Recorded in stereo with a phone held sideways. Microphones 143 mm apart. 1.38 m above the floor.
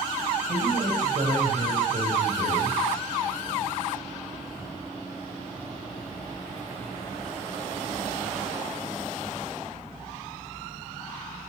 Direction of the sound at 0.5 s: 70° right (ahead or behind).